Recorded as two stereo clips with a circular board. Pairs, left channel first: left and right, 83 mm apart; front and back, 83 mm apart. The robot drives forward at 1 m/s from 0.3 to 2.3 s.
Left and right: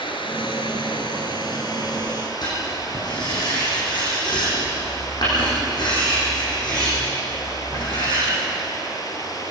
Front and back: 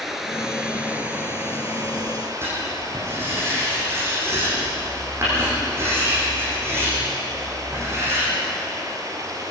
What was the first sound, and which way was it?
Running water, 95° left.